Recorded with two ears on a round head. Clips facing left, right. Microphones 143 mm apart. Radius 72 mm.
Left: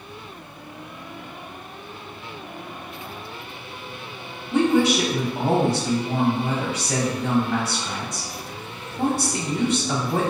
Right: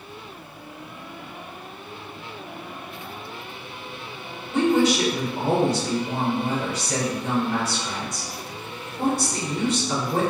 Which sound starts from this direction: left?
A woman speaking, at 4.5 s.